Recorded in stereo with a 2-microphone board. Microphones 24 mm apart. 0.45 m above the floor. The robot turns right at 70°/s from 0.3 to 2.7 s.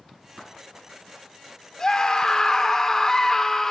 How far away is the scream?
About 1.3 m.